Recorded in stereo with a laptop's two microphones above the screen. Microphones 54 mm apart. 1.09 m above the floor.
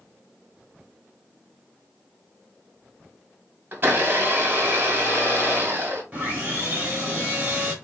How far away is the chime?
I don't hear a chime.